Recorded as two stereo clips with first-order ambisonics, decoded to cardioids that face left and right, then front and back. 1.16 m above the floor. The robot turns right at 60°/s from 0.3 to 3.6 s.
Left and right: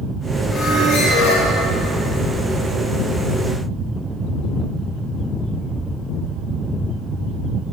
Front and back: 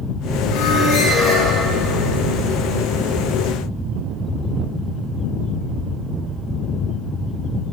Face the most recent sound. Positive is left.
turn(degrees=-160)